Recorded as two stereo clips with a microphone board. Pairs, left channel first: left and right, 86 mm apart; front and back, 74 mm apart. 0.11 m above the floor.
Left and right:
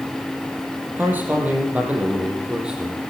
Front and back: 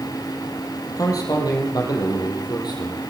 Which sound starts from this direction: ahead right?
A man speaking, at 1.0 s.